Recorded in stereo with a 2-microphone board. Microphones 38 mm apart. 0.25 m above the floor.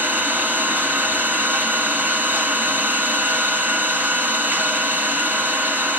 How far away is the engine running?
About 2.0 m.